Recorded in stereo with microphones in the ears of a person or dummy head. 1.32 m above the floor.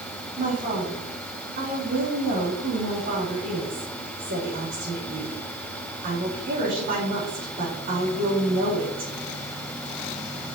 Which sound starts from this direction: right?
A woman speaking, at 0.4 s.